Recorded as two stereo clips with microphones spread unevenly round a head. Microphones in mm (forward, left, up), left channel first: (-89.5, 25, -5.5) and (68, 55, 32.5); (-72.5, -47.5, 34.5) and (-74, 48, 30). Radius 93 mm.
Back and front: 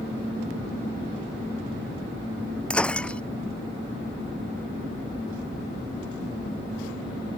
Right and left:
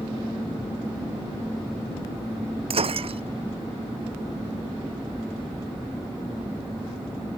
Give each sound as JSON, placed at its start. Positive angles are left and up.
{"t": 2.7, "sound": "breaking glass", "azimuth_deg": 105}